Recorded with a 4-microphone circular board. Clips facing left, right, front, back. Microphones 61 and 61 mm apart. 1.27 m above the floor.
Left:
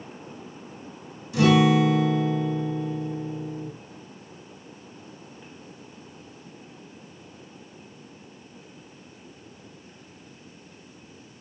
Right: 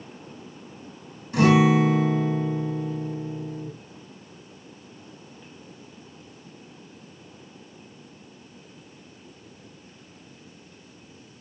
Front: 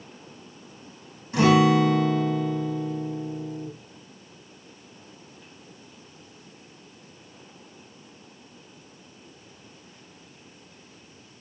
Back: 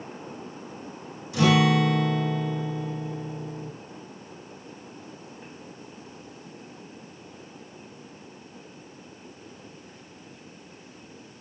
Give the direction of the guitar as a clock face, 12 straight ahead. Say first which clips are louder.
Right 1 dB, front 3 dB; 2 o'clock.